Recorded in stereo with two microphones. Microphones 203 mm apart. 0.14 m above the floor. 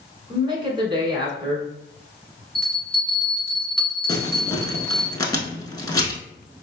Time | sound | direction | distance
0.3 | a woman speaking | 25° right (ahead or behind) | 1.3 m
2.5 | a bell | 25° left (ahead or behind) | 2.0 m
4.1 | crumpling | 20° left (ahead or behind) | 0.8 m